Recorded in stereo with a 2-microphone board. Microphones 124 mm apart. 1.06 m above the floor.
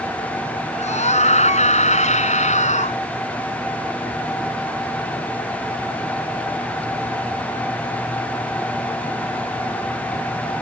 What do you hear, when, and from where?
0.7 s a scream: 65° left (ahead or behind); by 3.0 s 70° left (ahead or behind)